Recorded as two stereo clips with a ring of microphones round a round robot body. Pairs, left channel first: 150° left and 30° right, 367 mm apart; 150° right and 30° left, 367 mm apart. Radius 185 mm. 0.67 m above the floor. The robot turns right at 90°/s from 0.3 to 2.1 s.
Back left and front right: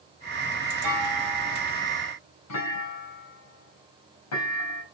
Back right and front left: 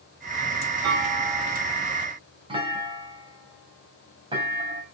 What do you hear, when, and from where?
0.8 s a clunk: 10° right, 4.5 m; by 4.8 s 105° left, 4.5 m